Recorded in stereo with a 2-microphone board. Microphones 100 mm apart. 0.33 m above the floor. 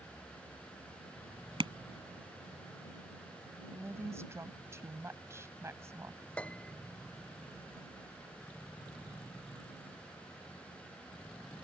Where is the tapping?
55° right (ahead or behind).